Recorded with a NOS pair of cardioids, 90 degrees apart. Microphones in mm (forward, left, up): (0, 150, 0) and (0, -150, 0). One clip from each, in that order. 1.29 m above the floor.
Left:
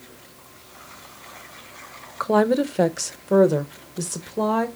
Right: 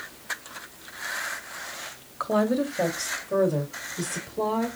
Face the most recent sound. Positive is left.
turn(degrees=75)